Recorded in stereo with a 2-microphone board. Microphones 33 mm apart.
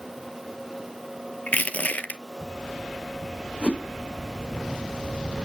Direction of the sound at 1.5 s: 50° left (ahead or behind).